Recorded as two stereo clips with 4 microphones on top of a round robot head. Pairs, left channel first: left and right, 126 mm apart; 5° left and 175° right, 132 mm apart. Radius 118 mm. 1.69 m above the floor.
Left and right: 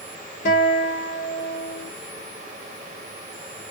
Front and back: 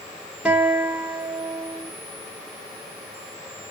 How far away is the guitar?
About 1.4 m.